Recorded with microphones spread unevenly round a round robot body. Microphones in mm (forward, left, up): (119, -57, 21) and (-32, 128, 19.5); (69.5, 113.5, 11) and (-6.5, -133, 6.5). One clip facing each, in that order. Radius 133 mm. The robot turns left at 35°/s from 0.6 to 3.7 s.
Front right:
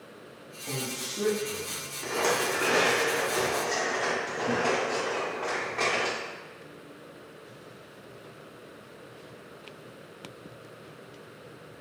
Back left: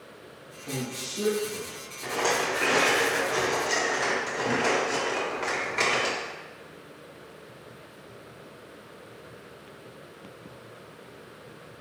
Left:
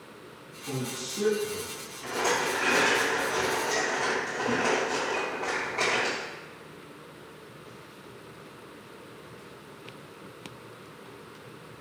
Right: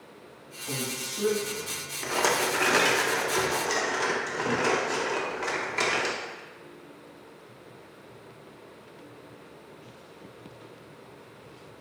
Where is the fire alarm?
No fire alarm in this recording.